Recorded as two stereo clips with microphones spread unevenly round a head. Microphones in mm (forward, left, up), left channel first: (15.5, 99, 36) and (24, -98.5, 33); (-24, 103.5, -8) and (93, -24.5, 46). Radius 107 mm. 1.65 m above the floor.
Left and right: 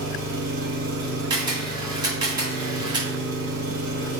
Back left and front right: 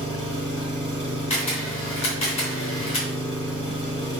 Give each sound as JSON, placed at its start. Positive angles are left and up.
{"t": 0.0, "sound": "an engine running", "azimuth_deg": -125, "distance_m": 2.5}
{"t": 1.3, "sound": "a camera shutter", "azimuth_deg": -155, "distance_m": 2.5}